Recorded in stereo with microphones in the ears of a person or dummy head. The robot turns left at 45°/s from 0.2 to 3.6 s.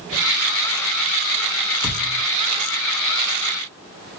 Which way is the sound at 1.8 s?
15° left (ahead or behind).